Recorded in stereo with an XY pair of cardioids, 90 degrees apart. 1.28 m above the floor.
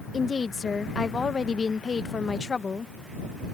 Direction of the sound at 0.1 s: 40° left.